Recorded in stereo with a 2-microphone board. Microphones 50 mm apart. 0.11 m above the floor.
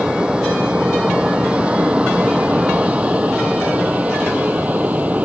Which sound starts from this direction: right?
An aircraft, at 0.0 s.